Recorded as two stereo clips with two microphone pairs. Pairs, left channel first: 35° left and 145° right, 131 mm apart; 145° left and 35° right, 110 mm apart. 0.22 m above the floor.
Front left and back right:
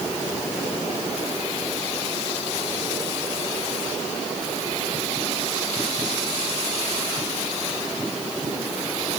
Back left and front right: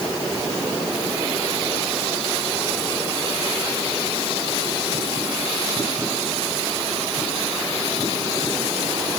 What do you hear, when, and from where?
Only background noise.